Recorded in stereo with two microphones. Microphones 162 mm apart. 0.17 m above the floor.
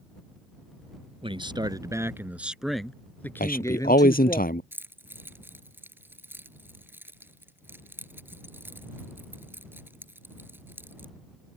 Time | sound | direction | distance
1.2 | a man speaking | 35° right (ahead or behind) | ?
3.4 | a man speaking | 65° left (ahead or behind) | ?
4.7 | keys jangling | 15° right (ahead or behind) | ?